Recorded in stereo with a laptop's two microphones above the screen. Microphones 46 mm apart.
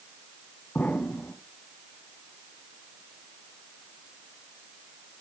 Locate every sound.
0.8 s an explosion: 40° left (ahead or behind), 1.3 m